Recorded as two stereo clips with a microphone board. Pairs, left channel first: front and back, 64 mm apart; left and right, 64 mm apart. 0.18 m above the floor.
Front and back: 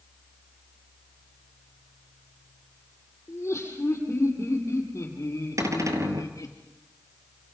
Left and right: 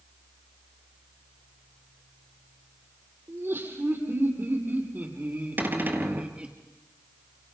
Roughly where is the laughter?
Ahead right.